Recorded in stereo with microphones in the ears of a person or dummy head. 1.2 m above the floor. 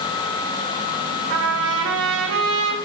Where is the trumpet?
75° right (ahead or behind), 2.5 m.